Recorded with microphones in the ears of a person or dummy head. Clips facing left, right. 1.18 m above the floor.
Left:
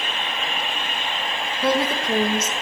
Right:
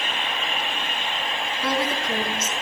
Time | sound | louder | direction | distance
1.6 | a woman speaking | left 4 dB | 25° left (ahead or behind) | 1.6 m